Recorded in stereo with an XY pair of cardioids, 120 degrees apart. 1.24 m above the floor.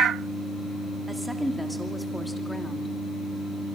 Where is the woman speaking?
5° right, 2.5 m; by 2.9 s 15° left, 2.5 m.